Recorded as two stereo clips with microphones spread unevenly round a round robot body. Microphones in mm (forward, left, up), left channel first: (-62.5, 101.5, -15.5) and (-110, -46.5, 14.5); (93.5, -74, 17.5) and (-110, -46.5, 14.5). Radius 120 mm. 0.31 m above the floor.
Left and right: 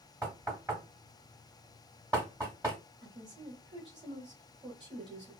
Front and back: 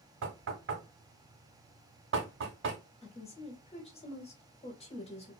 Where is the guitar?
No guitar in this recording.